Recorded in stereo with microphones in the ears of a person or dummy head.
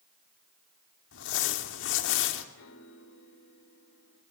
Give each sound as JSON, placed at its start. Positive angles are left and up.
{"t": 1.1, "sound": "crumpling", "side_deg": 75, "distance_m": 2.5}
{"t": 2.5, "sound": "a piano", "side_deg": 80, "distance_m": 3.0}